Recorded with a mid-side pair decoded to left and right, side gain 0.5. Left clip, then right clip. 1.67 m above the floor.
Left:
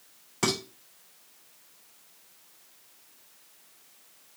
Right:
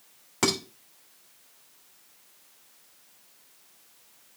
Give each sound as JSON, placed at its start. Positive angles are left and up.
{"t": 0.4, "sound": "dishes clattering", "azimuth_deg": -45, "distance_m": 4.0}